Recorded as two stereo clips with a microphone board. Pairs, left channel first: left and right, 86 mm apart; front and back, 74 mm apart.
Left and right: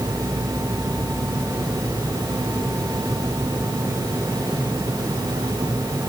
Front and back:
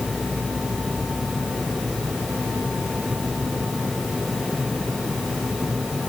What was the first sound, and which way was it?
Only background noise.